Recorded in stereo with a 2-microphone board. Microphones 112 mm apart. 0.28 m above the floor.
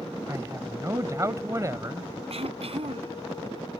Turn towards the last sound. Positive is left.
turn(degrees=-65)  # may be behind; listen again after turning